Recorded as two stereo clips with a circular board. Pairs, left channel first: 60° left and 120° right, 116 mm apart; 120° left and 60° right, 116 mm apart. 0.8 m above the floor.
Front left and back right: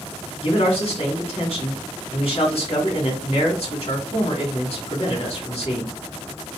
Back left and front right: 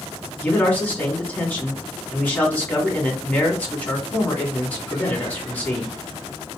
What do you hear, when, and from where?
0.4 s a man speaking: 45° left, 2 m